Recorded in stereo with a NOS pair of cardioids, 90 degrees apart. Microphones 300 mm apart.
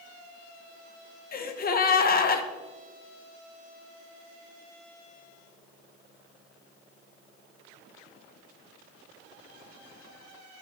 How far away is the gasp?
About 0.7 m.